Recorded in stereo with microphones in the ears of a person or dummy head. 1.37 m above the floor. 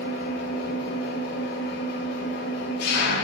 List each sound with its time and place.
0.0 s an engine running: 55° left (ahead or behind), 1.2 m